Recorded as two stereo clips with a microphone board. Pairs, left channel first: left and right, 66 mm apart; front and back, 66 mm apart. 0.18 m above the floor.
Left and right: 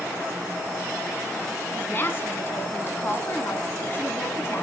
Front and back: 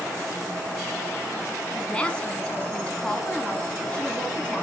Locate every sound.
1.7 s a woman speaking: 65° left, 1.3 m